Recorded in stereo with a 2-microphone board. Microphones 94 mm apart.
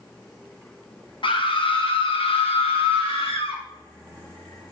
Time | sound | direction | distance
1.2 | a scream | 60° left (ahead or behind) | 1.4 m